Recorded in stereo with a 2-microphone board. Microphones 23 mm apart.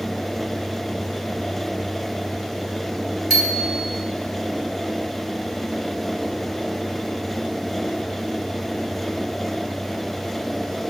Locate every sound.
3.3 s a bicycle bell: 20° left (ahead or behind), 6 m